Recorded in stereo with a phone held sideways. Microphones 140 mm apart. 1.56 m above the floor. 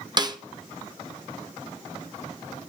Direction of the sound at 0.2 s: 30° right (ahead or behind).